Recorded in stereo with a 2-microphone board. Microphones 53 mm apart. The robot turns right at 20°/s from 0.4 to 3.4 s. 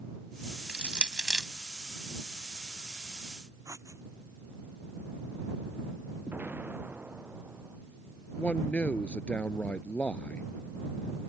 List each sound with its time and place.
0.7 s crushing: 20° right (ahead or behind); by 1.5 s 10° right (ahead or behind)
3.6 s writing: 75° right (ahead or behind)
6.3 s an explosion: 30° right (ahead or behind)
8.4 s a man speaking: 25° left (ahead or behind)